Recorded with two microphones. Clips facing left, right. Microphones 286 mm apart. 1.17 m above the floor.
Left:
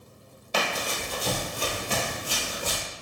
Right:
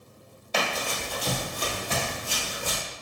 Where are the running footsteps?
15° left (ahead or behind), 1.3 m; by 2.8 s 50° left (ahead or behind), 1.7 m.